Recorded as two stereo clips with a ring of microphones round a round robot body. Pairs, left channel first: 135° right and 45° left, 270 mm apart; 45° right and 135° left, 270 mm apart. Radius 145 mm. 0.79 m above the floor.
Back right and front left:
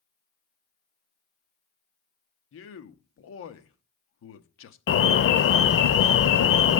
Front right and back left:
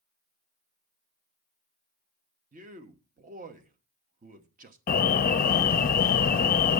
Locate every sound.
2.5 s a man speaking: 165° right, 0.9 m
4.9 s an alarm: 100° right, 0.6 m